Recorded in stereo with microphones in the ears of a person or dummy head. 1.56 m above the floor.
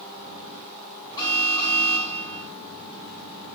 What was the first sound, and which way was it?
An alarm, 30° left (ahead or behind).